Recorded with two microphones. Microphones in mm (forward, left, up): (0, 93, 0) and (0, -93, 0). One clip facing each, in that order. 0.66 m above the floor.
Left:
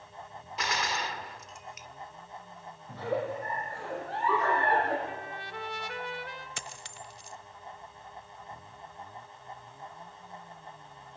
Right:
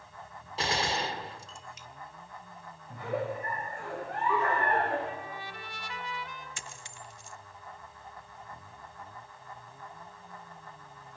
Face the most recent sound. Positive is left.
turn(degrees=70)  # may be behind; listen again after turning